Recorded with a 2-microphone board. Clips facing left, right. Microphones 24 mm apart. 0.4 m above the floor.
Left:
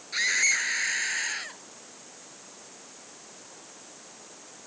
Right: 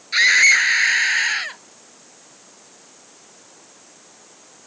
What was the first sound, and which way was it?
A scream, 45° right (ahead or behind).